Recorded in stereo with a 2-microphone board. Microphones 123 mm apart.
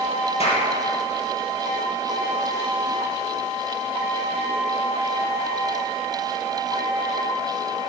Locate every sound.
0.4 s a clap: 55° left (ahead or behind), 4 m